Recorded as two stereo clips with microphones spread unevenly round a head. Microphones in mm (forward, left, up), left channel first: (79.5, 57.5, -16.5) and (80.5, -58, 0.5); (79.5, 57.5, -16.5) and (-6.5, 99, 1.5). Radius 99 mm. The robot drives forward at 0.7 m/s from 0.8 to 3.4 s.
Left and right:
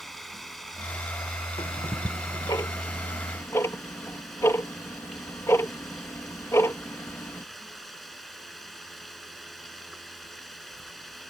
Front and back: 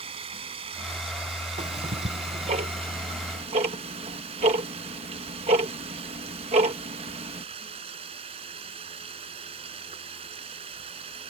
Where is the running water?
Straight behind.